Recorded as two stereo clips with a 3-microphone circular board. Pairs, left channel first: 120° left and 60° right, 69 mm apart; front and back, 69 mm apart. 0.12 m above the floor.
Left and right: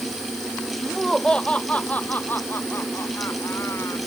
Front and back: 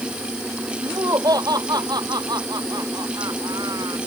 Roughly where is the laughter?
Behind right.